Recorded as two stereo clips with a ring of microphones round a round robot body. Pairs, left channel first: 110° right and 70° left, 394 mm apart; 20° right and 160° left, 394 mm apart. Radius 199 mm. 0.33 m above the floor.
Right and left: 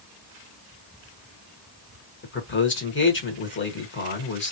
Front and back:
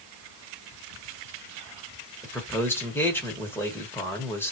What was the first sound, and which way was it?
A man speaking, 100° right.